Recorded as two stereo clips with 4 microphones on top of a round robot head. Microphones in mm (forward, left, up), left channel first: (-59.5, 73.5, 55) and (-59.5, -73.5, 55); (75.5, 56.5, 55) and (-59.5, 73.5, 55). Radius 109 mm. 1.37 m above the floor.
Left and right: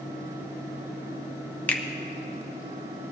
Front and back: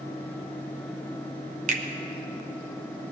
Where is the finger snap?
165° left, 0.6 m.